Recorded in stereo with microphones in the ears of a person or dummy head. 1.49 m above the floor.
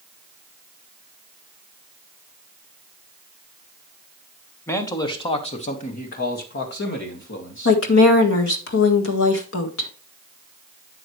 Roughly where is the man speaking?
Centre.